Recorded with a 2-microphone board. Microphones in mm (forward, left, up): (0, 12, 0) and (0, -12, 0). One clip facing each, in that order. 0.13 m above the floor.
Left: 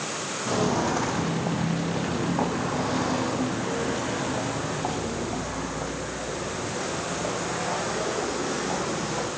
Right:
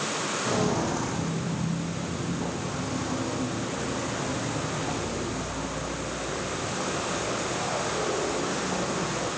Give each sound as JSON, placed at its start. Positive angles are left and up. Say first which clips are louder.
{"t": 0.5, "sound": "footsteps", "louder": "left 3 dB", "side_deg": 5, "distance_m": 1.5}